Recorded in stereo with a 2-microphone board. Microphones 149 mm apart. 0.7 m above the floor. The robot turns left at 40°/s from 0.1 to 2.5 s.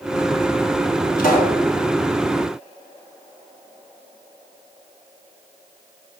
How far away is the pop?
About 2.5 m.